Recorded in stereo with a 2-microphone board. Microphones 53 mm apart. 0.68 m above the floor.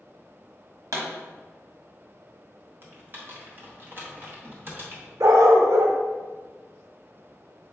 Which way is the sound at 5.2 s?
80° right.